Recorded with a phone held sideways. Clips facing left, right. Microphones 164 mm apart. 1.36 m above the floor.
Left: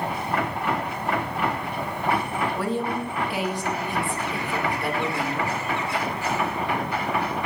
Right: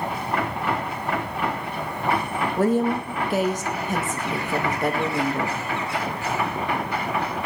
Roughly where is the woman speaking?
Right.